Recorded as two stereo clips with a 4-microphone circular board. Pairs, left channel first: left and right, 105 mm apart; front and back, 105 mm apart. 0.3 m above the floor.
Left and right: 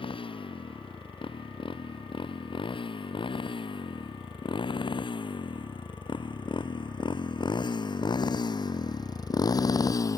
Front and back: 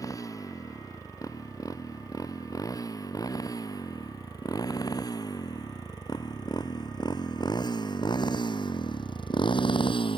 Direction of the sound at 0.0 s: 60° left.